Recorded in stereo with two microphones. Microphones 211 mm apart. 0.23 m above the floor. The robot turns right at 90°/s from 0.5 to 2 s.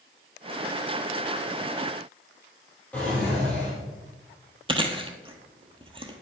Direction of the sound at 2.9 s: 5° left (ahead or behind).